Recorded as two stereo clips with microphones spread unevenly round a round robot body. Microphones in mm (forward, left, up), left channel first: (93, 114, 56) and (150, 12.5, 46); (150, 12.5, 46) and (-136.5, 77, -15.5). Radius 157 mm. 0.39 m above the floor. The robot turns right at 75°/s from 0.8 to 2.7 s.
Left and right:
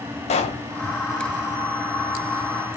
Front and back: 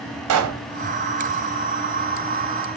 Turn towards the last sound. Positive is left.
turn(degrees=-70)